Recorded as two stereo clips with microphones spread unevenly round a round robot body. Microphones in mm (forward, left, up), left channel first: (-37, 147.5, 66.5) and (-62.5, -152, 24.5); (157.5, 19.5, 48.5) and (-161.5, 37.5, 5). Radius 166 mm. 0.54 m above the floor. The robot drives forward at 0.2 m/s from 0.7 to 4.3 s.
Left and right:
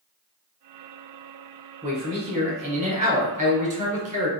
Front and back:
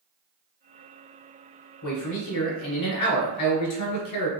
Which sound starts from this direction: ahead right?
A man speaking, at 1.8 s.